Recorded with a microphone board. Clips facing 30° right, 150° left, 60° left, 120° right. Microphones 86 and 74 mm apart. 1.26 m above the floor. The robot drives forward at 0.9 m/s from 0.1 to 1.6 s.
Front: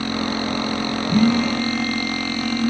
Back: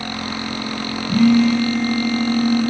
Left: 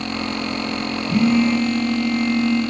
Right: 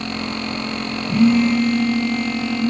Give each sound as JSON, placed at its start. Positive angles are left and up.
{"t": 1.1, "sound": "a phone buzzing", "azimuth_deg": 180, "distance_m": 1.2}